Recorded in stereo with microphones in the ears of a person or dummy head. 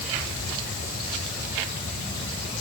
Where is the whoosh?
I don't hear a whoosh.